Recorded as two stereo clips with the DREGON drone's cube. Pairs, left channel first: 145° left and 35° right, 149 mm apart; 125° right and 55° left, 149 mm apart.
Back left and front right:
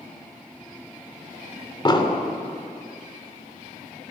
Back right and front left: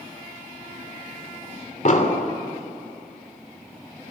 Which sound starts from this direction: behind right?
An explosion, at 1.9 s.